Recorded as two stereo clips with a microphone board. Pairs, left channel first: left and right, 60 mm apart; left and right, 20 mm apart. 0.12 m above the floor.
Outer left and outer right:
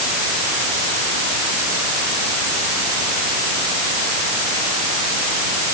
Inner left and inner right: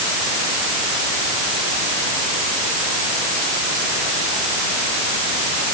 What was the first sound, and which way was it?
Only background noise.